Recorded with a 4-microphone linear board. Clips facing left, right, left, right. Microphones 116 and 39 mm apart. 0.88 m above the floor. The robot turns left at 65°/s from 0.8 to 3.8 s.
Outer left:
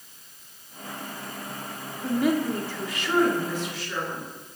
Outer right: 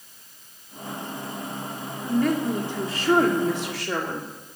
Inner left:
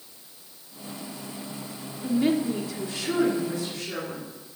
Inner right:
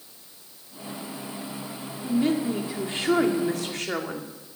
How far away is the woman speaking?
About 2 m.